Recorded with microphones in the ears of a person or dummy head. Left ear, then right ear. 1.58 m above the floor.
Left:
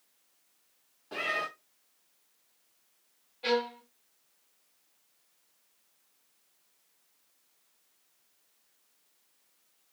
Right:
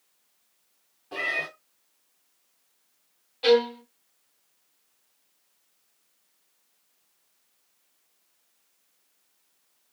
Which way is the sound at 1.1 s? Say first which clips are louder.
Right 4 dB; 15° left (ahead or behind).